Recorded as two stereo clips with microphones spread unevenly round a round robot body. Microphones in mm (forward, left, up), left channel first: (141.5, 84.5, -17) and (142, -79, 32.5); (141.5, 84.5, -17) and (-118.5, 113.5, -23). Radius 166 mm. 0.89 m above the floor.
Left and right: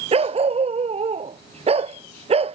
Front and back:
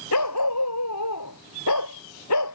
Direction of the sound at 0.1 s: 45° right.